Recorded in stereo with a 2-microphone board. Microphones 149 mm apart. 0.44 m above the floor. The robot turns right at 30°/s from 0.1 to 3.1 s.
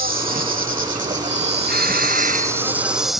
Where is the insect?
90° right; by 3.2 s straight ahead.